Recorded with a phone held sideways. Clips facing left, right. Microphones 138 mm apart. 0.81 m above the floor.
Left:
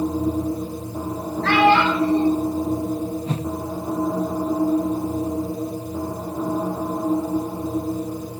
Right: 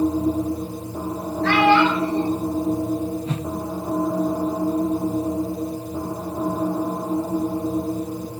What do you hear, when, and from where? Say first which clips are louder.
1.4 s a child speaking: even; 70° left (ahead or behind), 6 m
3.3 s a whoosh: left 1 dB; 35° left (ahead or behind), 0.6 m